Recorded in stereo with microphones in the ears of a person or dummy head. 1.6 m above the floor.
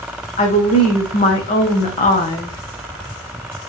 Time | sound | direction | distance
0.4 | a woman speaking | 30° left (ahead or behind) | 1.1 m